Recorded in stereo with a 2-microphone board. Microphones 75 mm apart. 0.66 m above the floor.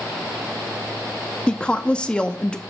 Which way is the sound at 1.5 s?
15° left (ahead or behind).